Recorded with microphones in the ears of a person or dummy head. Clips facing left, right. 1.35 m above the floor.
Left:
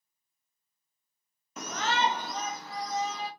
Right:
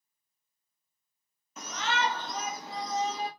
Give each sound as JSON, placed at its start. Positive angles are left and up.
{"t": 1.6, "sound": "a shout", "side_deg": 50, "distance_m": 0.7}